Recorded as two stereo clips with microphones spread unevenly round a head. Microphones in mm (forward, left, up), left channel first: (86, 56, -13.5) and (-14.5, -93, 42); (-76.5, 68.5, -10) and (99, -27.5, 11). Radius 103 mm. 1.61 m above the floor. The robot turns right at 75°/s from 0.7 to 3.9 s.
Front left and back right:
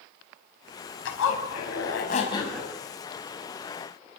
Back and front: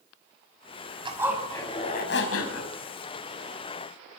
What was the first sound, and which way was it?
A zipper, 35° left.